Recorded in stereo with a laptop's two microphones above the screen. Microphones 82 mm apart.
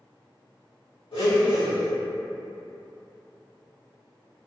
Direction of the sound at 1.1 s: 75° left (ahead or behind).